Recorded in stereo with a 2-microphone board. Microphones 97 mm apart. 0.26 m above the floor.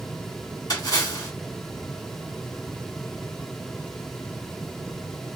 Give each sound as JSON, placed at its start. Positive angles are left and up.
{"t": 0.7, "sound": "a splash", "side_deg": 45, "distance_m": 1.9}